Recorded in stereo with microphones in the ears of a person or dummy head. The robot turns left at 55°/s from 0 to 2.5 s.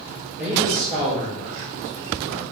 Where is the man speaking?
10° right, 4 m; by 2.4 s 120° right, 4 m.